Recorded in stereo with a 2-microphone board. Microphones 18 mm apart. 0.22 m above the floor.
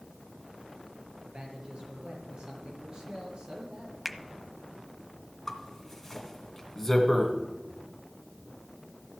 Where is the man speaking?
60° right (ahead or behind), 5 m.